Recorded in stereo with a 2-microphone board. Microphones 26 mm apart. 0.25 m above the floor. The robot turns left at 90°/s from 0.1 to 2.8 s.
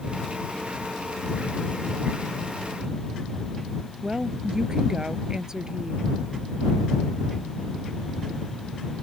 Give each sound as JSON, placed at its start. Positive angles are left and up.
{"t": 4.0, "sound": "a woman speaking", "side_deg": -25}